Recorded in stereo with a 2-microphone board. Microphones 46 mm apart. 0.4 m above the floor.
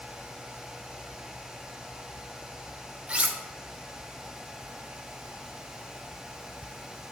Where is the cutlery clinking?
25° right (ahead or behind), 0.6 m.